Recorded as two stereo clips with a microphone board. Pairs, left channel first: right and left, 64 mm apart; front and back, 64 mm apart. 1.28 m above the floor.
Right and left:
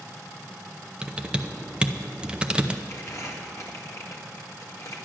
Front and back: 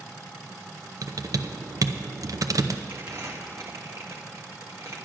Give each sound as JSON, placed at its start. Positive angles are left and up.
{"t": 1.0, "sound": "typing on a keyboard", "azimuth_deg": 160, "distance_m": 0.6}
{"t": 2.9, "sound": "crumpling", "azimuth_deg": -135, "distance_m": 1.6}